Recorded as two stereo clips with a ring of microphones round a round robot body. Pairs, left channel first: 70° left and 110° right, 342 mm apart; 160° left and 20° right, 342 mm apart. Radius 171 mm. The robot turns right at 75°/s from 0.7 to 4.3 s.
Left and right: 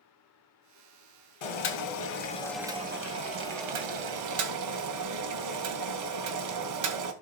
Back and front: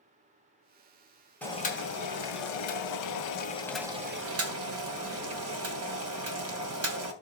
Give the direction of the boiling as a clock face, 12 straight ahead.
10 o'clock.